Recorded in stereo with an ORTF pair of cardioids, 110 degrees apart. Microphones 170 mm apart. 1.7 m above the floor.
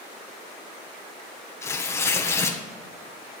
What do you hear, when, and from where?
1.6 s tearing paper: 15° left, 1.4 m